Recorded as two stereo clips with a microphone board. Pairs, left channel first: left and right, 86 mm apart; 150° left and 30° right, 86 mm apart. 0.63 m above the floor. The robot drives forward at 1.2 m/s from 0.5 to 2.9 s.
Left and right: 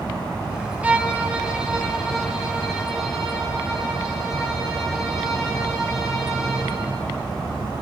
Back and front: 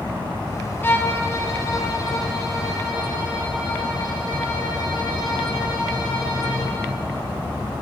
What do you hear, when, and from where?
0.8 s a violin: 155° right, 1.2 m; by 6.7 s 175° right, 3.5 m